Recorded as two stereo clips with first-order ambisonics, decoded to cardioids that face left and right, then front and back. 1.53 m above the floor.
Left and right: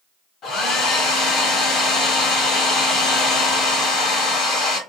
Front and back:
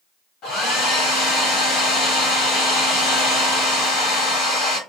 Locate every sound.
0.4 s a hair dryer: 40° left, 1.3 m